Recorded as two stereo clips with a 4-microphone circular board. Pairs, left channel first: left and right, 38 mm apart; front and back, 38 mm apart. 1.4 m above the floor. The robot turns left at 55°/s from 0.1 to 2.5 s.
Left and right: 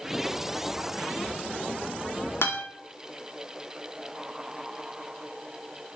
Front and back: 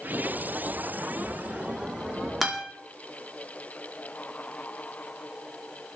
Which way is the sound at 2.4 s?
95° left.